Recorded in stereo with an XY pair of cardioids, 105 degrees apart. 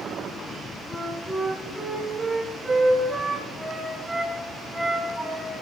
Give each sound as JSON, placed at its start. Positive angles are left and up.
{"t": 0.9, "sound": "a flute", "azimuth_deg": -5, "distance_m": 6.5}